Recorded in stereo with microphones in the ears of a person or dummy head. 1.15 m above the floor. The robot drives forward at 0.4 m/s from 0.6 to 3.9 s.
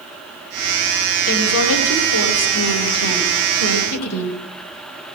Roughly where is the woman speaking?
Left.